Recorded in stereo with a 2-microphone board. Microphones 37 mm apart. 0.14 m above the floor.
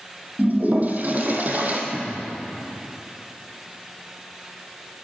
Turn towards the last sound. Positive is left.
turn(degrees=-10)  # may be behind; listen again after turning